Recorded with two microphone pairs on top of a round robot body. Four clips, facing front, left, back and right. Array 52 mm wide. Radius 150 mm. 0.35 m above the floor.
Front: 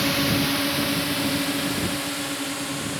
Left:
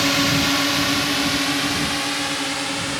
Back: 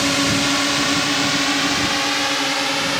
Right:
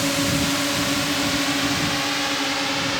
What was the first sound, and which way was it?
A drone, 130° left.